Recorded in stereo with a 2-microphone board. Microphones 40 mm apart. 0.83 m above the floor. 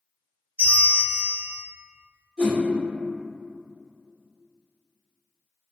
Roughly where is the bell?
Right.